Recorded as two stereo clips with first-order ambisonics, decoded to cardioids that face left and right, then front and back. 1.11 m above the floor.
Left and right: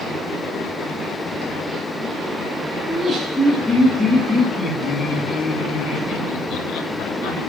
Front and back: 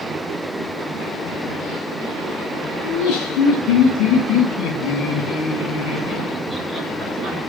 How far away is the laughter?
About 3 m.